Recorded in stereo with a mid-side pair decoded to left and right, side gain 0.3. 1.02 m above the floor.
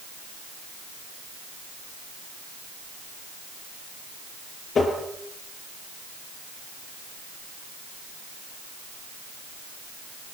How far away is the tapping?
About 8 m.